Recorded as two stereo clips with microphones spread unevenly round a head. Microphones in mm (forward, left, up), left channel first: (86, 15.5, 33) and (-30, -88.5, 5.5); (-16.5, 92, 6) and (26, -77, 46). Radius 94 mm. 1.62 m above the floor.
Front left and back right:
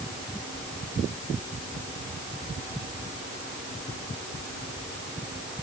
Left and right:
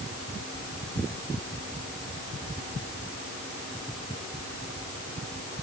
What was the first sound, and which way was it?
Only background noise.